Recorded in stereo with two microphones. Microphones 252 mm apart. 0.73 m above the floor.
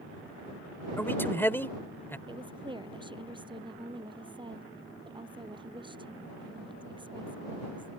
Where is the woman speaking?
20° right (ahead or behind).